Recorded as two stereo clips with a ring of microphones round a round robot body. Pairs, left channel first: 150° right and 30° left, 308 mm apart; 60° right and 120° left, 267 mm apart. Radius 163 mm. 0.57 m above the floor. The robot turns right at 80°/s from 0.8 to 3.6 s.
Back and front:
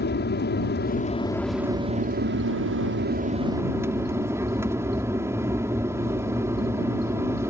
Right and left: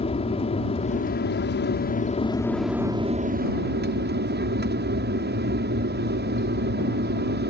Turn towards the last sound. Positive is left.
turn(degrees=105)